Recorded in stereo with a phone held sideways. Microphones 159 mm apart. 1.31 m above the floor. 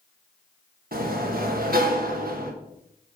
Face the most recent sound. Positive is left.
turn(degrees=-70)  # may be behind; listen again after turning